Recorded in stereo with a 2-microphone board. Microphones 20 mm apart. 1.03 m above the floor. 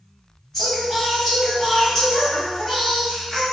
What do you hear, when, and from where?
0.5 s singing: 20° left (ahead or behind), 1.4 m